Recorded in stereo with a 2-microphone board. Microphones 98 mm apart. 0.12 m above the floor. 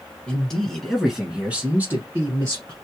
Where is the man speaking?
10° left (ahead or behind), 1.4 m; by 2.7 s 30° right (ahead or behind), 1.4 m.